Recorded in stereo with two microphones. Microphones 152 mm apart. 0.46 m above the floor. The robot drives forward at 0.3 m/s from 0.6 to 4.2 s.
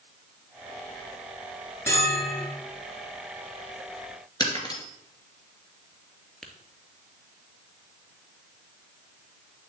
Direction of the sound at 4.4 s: 25° left (ahead or behind).